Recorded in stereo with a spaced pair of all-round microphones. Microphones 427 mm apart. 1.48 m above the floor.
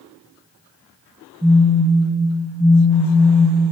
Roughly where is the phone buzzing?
Centre.